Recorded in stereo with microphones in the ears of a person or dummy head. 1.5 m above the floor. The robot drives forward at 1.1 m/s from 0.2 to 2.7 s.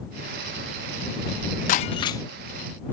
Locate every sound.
1.7 s breaking glass: 25° left (ahead or behind); by 2.2 s 20° left (ahead or behind)